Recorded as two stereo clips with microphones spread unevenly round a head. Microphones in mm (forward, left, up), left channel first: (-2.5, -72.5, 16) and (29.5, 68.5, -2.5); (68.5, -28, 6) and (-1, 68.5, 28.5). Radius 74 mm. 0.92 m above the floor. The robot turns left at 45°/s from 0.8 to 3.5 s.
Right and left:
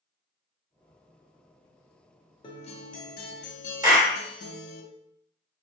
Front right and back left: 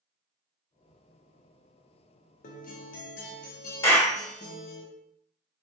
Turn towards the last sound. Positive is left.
turn(degrees=10)